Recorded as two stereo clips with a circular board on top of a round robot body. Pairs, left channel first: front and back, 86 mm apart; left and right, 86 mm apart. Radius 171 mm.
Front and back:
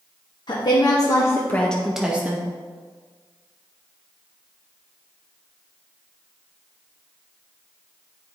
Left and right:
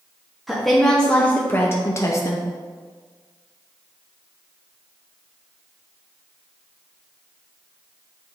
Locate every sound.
0.5 s a woman speaking: straight ahead, 1.4 m; by 2.5 s 125° left, 1.1 m